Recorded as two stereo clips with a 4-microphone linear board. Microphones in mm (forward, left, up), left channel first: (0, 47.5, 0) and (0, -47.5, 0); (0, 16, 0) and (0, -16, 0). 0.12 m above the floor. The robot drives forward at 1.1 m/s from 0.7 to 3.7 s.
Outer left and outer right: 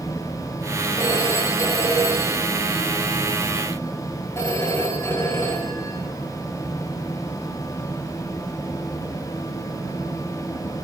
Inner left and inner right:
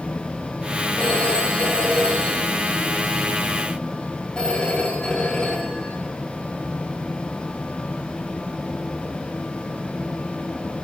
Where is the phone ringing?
40° left (ahead or behind), 7.5 m; by 6.0 s 30° left (ahead or behind), 10 m.